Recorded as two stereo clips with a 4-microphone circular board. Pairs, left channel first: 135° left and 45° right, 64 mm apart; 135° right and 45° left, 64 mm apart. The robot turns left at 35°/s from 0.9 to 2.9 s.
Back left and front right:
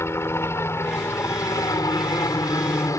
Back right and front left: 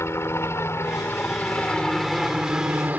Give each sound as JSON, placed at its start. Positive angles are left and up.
{"t": 0.0, "sound": "a helicopter", "azimuth_deg": 180}